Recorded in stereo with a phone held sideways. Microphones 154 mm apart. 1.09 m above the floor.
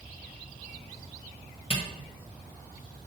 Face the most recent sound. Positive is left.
turn(degrees=40)  # may be behind; listen again after turning